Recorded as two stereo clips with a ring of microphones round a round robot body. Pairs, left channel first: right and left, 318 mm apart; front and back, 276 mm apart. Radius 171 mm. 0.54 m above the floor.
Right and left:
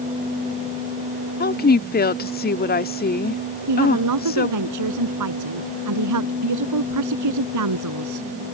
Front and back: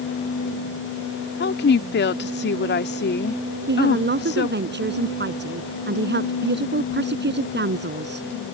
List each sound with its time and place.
1.4 s a woman speaking: 40° right
3.7 s a woman speaking: 125° left